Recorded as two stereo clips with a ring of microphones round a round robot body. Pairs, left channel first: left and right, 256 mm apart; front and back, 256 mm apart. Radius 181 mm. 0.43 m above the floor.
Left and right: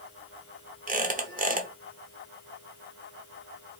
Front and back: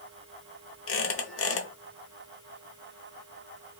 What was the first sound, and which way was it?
A squeak, 30° right.